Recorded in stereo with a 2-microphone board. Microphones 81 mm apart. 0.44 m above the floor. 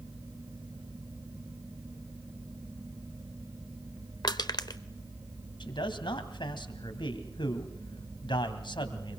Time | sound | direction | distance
4.2 | crushing | 55° left (ahead or behind) | 0.9 m
5.6 | a man speaking | 70° left (ahead or behind) | 2.5 m